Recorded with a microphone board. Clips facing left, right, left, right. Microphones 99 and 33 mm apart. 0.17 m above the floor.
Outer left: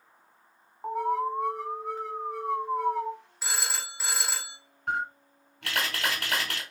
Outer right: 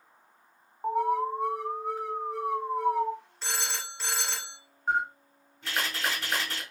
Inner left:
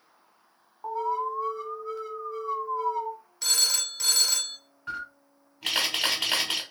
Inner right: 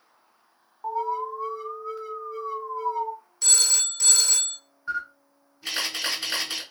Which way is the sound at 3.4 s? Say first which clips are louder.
Outer left 2 dB, inner right 1 dB; 10° left (ahead or behind).